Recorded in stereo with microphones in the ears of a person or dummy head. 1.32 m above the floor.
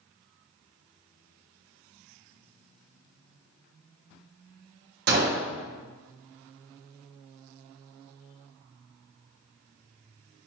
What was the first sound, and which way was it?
A gunshot, 55° right (ahead or behind).